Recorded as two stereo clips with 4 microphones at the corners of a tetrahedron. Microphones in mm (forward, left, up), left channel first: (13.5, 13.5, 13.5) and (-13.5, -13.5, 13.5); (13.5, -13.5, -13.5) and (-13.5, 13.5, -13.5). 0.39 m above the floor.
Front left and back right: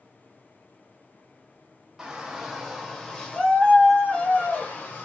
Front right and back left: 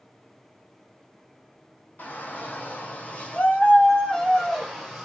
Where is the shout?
55° right, 2.0 m; by 5.0 s 40° left, 2 m.